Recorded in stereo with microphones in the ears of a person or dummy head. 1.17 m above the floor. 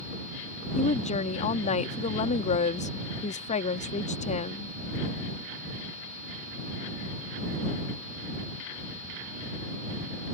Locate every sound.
0.8 s a woman speaking: 35° left (ahead or behind)